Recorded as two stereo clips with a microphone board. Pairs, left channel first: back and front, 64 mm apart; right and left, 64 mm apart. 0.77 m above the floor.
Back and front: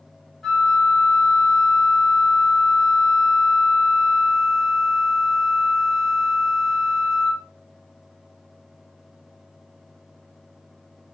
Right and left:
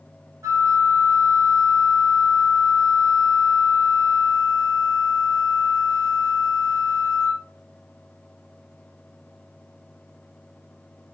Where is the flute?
95° left, 1.3 m.